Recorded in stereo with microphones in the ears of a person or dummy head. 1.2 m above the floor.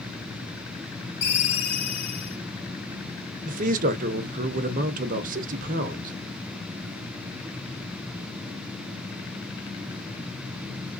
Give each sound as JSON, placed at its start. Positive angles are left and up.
{"t": 1.2, "sound": "a ringtone", "side_deg": 55, "distance_m": 1.4}
{"t": 3.4, "sound": "a man speaking", "side_deg": -40, "distance_m": 0.6}